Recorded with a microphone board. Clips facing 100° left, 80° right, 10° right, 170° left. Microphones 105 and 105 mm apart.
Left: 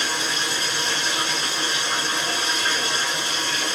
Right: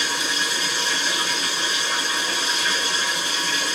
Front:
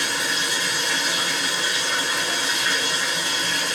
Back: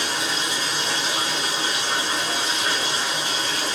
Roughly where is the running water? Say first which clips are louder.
Even, even; behind left.